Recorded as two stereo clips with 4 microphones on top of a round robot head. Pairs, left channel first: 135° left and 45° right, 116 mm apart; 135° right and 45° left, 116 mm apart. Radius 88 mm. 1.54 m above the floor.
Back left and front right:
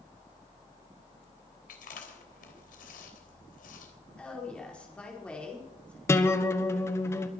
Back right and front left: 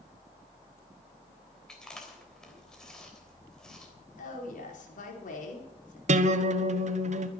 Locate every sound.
1.7 s chewing: 140° left, 3 m
4.2 s a woman speaking: 145° right, 5 m
6.1 s a guitar: 65° left, 1.3 m